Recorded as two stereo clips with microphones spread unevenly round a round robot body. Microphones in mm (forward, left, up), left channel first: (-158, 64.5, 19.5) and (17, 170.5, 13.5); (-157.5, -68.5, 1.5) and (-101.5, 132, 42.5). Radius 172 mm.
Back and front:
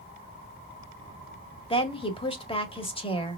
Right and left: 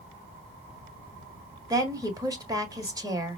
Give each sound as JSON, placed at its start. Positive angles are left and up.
{"t": 1.7, "sound": "a woman speaking", "azimuth_deg": 155, "distance_m": 1.7}